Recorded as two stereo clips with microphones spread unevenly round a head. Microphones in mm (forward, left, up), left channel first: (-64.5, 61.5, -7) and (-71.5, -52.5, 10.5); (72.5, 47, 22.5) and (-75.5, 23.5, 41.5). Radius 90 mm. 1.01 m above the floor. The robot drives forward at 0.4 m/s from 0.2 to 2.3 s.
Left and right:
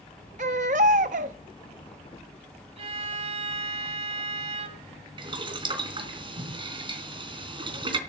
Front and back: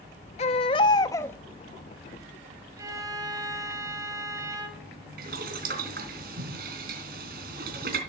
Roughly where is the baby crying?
Ahead right.